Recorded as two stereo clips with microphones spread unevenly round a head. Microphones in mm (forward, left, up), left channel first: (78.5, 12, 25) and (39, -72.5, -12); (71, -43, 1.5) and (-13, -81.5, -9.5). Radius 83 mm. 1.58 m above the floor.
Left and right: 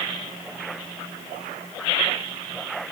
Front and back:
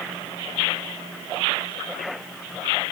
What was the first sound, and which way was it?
Only background noise.